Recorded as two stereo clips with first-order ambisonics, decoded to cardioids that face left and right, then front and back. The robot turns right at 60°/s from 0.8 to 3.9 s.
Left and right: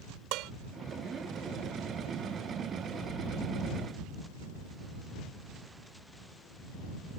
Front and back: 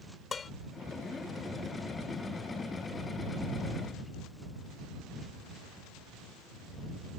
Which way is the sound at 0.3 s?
70° right.